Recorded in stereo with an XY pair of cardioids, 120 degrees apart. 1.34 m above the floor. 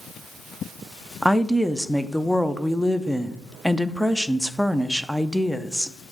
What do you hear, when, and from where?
1.2 s a woman speaking: 5° right, 0.5 m